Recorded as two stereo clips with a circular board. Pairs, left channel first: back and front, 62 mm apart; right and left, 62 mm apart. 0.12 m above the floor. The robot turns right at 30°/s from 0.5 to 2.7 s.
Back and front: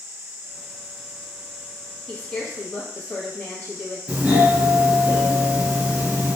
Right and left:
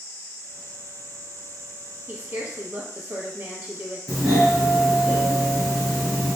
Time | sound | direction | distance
2.1 | a woman speaking | 120° left | 1.4 m
4.1 | a doorbell | 5° left | 2.0 m